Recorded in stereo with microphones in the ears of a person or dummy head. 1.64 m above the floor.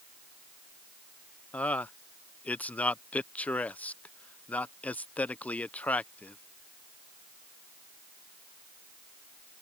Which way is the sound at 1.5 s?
10° left (ahead or behind).